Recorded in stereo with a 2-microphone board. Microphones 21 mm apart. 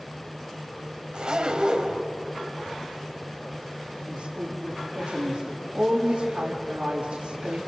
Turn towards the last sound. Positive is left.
turn(degrees=-70)  # may be behind; listen again after turning